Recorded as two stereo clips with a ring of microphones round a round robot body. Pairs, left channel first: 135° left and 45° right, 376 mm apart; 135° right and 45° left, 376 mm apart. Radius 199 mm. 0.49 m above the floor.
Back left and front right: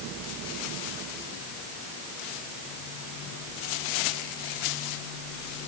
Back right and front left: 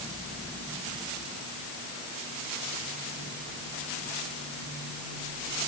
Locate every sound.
Only background noise.